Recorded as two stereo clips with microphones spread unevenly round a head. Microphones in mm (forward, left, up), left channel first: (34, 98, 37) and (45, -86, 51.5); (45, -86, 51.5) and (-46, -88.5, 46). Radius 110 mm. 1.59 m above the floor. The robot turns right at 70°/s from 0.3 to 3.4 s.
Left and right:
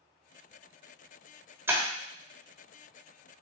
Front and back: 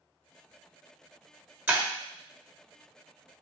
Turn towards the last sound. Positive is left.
turn(degrees=-20)